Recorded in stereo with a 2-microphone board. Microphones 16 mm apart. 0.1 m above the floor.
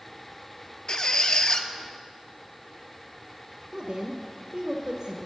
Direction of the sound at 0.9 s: 50° left (ahead or behind).